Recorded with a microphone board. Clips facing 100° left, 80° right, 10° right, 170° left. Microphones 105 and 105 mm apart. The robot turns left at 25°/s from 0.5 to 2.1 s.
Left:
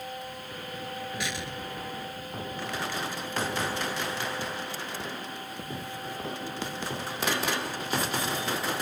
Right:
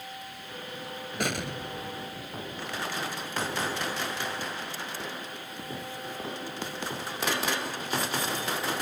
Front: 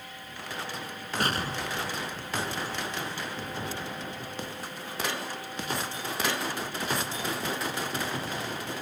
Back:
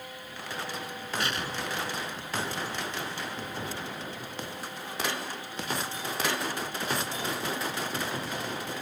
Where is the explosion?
50° right; by 2.9 s 75° right.